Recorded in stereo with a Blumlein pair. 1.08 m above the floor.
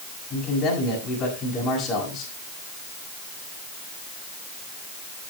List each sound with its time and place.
0.3 s a man speaking: 25° left, 6.5 m